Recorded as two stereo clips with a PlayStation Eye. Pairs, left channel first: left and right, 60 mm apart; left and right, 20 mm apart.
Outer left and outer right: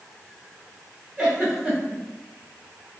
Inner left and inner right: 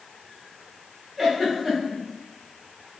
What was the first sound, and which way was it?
A giggle, 10° right (ahead or behind).